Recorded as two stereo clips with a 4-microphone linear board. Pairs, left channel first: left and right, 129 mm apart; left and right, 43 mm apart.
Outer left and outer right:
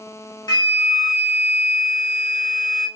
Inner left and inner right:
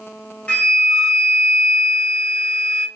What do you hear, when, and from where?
0.5 s a flute: 30° left (ahead or behind), 1.2 m